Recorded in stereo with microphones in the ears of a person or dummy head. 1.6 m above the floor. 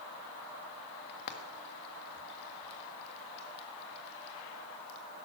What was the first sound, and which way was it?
Frying, 55° left (ahead or behind).